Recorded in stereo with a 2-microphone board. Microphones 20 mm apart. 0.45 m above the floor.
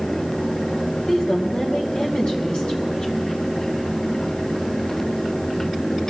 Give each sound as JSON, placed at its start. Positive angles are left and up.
{"t": 1.1, "sound": "a woman speaking", "side_deg": 55, "distance_m": 2.5}